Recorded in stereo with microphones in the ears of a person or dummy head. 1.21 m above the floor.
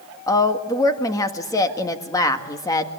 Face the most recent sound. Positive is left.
turn(degrees=15)  # may be behind; listen again after turning